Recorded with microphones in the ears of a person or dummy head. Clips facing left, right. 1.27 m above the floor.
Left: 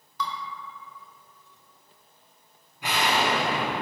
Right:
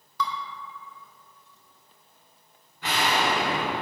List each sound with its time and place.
0.2 s dishes clattering: 65° right (ahead or behind), 0.6 m
2.8 s an explosion: 25° left (ahead or behind), 0.9 m